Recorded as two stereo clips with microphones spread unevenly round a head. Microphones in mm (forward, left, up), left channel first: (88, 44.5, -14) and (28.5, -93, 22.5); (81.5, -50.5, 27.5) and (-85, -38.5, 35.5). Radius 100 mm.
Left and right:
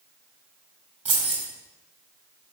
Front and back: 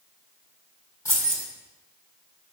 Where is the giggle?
No giggle in this recording.